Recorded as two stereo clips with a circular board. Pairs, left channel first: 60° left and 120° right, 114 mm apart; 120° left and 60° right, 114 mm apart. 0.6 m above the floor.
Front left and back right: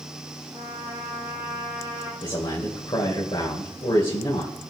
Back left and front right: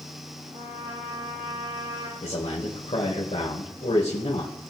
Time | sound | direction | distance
0.5 | a trumpet | 55° right | 5 m
2.2 | a man speaking | 100° left | 2.5 m